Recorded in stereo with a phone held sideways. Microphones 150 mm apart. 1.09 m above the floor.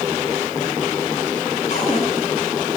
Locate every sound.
1.7 s a cupboard door: 55° left (ahead or behind), 8.5 m